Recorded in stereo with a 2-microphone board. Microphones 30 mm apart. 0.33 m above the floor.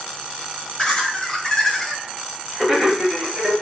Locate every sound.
0.8 s laughter: 25° left (ahead or behind), 1.4 m; by 3.5 s 10° right (ahead or behind), 1.8 m